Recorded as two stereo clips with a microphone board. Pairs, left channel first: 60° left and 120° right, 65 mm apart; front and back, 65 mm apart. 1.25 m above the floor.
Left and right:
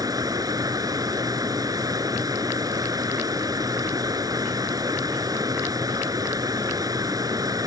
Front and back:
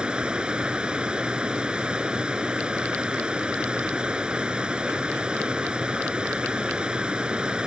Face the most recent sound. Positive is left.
turn(degrees=-105)